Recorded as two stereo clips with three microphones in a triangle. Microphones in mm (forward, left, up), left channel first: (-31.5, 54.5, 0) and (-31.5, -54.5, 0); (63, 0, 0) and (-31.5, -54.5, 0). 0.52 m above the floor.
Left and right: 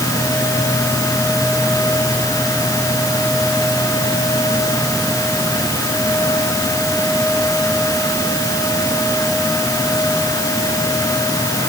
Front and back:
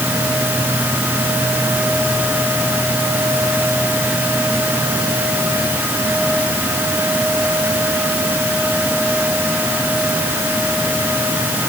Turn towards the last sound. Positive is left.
No sound to turn to.